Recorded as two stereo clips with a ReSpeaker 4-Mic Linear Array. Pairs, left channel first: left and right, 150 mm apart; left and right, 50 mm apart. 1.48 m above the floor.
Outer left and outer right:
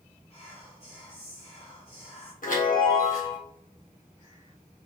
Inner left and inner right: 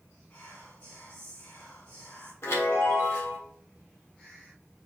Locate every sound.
0.3 s whispering: 40° left (ahead or behind), 1.6 m
2.4 s a chime: 60° left (ahead or behind), 1.7 m